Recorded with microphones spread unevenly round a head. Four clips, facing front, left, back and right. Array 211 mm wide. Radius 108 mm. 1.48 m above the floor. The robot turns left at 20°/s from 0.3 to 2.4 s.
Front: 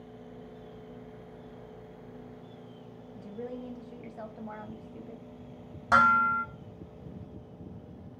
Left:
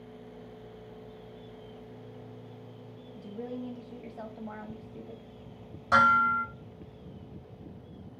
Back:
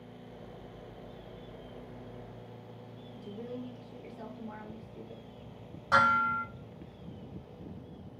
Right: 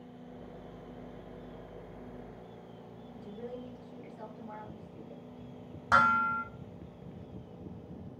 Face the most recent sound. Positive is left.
turn(degrees=-15)